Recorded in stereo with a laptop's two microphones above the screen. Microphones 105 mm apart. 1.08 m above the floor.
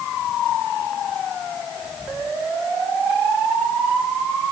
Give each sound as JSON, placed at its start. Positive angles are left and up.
{"t": 1.8, "sound": "whispering", "side_deg": 5, "distance_m": 3.0}